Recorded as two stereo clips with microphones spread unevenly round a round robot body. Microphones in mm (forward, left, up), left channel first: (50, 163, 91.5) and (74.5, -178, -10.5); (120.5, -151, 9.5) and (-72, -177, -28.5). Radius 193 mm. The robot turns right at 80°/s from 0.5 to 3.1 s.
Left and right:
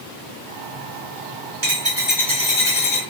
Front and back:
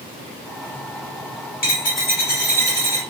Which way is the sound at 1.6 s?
40° right.